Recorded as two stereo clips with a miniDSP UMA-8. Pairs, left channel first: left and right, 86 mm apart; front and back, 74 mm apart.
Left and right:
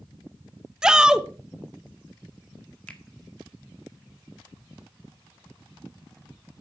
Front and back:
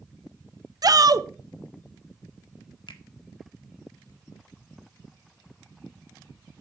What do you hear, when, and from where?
0.8 s a shout: 170° right, 0.8 m
2.9 s a finger snap: 10° left, 1.6 m